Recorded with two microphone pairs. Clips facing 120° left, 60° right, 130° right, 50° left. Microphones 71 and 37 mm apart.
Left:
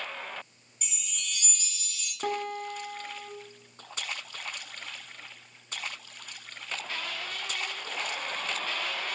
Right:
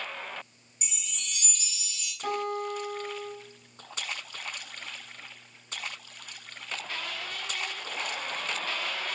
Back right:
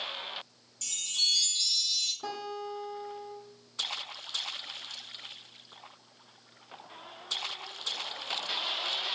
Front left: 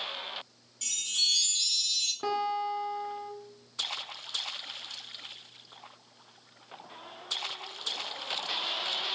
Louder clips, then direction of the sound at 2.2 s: Right 1 dB, front left 7 dB; 95° left.